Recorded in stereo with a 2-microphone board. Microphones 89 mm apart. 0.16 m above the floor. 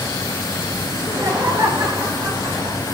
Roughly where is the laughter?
Right.